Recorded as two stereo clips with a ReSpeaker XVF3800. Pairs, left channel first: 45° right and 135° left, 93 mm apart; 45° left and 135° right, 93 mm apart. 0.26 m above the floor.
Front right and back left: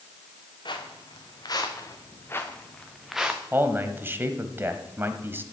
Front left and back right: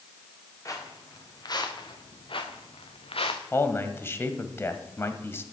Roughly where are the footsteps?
Ahead.